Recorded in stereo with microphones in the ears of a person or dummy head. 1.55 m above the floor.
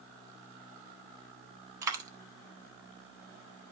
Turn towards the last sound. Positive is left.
turn(degrees=-15)  # may be behind; listen again after turning